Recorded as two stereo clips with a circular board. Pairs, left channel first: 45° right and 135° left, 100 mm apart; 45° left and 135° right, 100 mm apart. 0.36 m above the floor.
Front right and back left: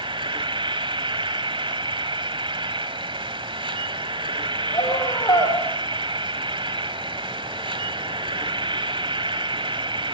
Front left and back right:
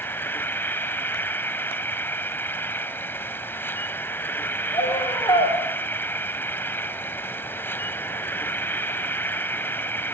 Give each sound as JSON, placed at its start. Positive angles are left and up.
{"t": 0.0, "sound": "an insect", "azimuth_deg": 110, "distance_m": 1.2}
{"t": 4.7, "sound": "a scream", "azimuth_deg": 5, "distance_m": 6.0}